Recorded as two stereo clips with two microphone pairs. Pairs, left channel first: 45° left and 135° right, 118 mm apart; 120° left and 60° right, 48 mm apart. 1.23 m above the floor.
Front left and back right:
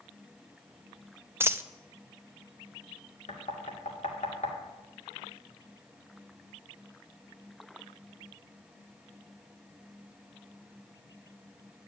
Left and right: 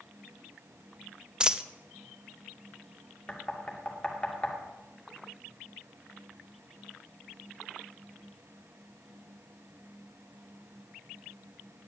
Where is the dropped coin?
115° right, 0.5 m.